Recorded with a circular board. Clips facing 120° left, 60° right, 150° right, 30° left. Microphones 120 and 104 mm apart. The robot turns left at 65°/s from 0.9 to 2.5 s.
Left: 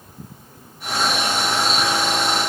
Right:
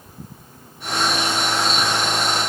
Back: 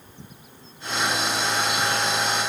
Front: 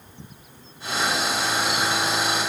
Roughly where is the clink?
No clink in this recording.